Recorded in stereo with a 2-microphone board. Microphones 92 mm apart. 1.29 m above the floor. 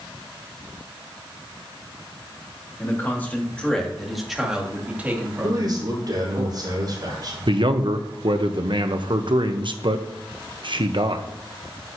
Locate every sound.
2.8 s a man speaking: 25° left (ahead or behind), 2.5 m; by 6.4 s 35° right (ahead or behind), 3 m
5.4 s a man speaking: 45° right (ahead or behind), 4.5 m
7.5 s a man speaking: 60° right (ahead or behind), 0.9 m